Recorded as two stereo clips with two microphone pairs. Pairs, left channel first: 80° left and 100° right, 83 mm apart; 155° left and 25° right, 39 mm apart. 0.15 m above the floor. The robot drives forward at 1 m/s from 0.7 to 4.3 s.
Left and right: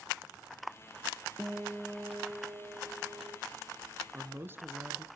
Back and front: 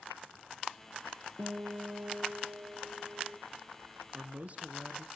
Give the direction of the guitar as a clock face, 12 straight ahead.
1 o'clock.